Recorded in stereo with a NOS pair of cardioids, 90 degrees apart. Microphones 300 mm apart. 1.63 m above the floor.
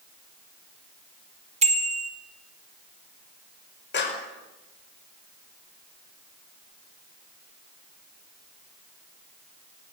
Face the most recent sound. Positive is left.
turn(degrees=35)